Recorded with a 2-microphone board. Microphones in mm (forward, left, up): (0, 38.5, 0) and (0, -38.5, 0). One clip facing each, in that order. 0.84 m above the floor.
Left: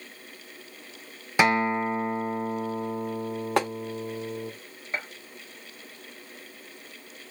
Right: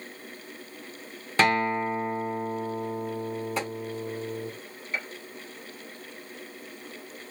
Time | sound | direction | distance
1.4 | a guitar | 10° left (ahead or behind) | 0.6 m
3.6 | tapping | 65° left (ahead or behind) | 0.7 m
4.9 | a gunshot | 35° left (ahead or behind) | 0.9 m